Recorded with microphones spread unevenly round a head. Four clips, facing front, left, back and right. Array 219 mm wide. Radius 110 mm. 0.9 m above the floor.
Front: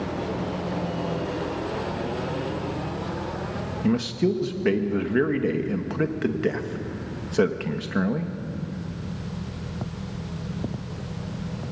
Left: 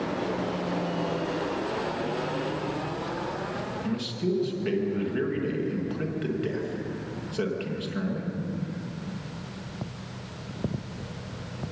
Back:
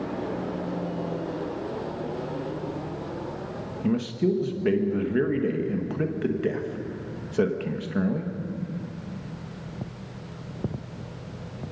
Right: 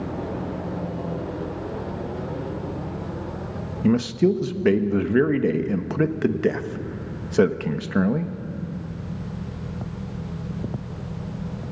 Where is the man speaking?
75° right, 1.3 m.